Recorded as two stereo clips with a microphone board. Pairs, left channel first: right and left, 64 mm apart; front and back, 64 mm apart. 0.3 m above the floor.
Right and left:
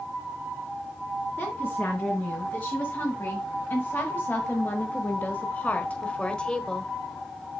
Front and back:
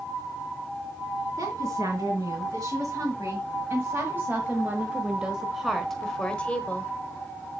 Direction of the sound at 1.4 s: 145° right.